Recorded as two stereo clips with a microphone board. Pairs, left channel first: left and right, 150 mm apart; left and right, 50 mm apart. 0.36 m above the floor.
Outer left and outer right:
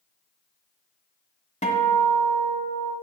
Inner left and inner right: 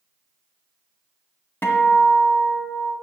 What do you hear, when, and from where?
1.6 s a guitar: 50° left (ahead or behind), 1.5 m